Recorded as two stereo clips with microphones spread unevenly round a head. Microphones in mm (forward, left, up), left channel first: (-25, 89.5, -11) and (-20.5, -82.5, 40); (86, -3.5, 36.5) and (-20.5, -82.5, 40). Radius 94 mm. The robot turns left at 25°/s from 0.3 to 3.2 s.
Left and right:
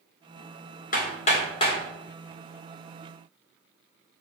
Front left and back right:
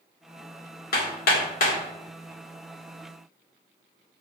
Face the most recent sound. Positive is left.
turn(degrees=-15)